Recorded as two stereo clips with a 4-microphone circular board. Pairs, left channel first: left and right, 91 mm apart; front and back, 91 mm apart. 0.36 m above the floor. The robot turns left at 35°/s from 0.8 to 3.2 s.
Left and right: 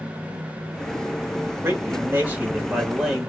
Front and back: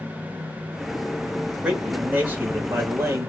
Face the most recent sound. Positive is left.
turn(degrees=-170)